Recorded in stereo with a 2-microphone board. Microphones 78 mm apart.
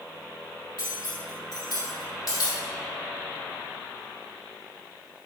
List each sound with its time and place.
0.8 s cutlery clinking: 55° left (ahead or behind), 3.5 m